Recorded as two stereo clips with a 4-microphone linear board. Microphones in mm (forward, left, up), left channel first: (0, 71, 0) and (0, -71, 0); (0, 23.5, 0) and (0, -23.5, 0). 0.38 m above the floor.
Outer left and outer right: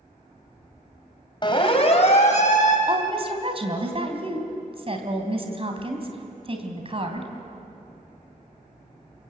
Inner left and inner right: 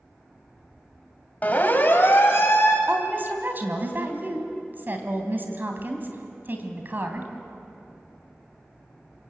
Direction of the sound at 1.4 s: 35° left (ahead or behind).